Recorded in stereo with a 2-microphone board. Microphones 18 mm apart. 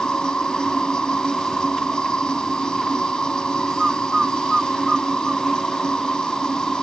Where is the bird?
20° right (ahead or behind).